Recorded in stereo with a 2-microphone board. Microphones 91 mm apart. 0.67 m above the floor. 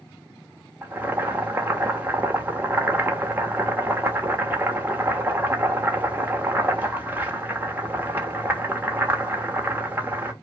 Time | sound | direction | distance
0.8 | boiling | 20° right (ahead or behind) | 0.9 m